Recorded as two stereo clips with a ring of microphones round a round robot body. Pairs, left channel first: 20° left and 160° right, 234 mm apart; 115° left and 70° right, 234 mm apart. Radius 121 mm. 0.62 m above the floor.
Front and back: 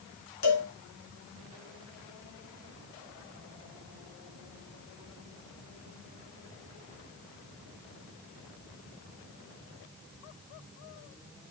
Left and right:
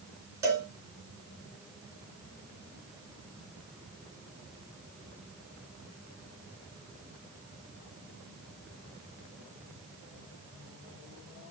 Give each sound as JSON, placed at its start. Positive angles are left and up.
{"t": 0.4, "sound": "a cowbell", "azimuth_deg": 10, "distance_m": 3.5}